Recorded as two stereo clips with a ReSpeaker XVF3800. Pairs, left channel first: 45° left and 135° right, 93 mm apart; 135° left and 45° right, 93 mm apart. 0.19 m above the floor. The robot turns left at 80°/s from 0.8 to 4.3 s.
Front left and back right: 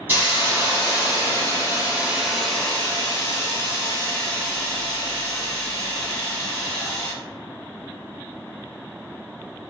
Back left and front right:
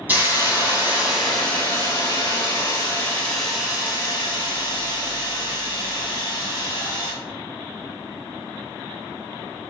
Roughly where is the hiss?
Right.